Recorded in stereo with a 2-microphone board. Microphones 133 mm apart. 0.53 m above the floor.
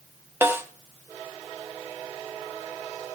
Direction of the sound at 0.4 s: 20° right (ahead or behind).